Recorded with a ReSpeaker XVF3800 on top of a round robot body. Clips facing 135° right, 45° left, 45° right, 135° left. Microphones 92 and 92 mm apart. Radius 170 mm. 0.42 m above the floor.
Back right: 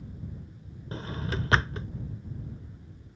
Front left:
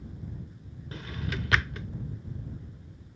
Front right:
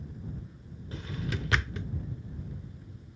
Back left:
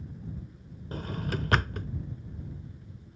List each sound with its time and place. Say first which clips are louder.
0.9 s a drawer: back right 2 dB, back left 3 dB; 170° left